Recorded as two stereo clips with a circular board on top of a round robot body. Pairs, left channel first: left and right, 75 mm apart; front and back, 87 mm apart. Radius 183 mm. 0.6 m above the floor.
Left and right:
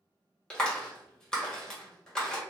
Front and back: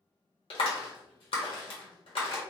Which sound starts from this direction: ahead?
A clap, at 0.5 s.